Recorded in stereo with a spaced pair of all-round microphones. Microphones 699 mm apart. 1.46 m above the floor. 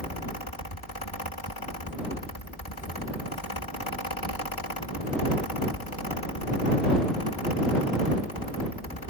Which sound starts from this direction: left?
A fan, at 0.0 s.